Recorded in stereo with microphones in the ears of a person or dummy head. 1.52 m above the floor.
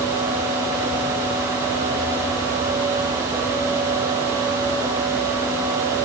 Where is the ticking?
I don't hear ticking.